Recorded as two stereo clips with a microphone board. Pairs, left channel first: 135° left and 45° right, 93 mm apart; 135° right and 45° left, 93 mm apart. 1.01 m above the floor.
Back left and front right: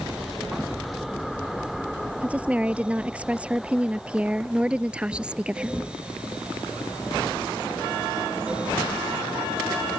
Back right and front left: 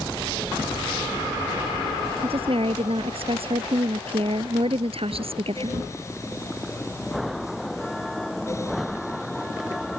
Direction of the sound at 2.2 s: 30° left.